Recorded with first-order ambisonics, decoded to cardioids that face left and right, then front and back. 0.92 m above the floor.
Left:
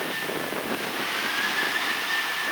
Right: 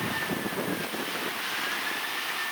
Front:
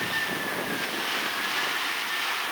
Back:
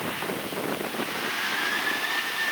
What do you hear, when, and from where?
Only background noise.